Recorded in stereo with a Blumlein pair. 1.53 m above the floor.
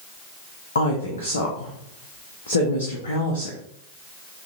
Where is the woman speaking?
65° left, 0.7 m.